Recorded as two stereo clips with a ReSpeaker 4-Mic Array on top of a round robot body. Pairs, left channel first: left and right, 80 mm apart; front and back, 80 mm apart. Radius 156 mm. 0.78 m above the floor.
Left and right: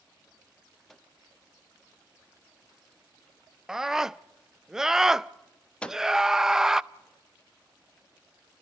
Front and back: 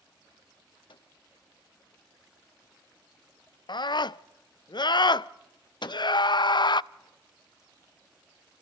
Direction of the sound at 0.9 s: 5° left.